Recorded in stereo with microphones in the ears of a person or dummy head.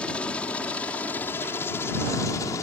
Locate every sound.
0.0 s a helicopter: 5° left (ahead or behind); by 2.6 s 15° left (ahead or behind)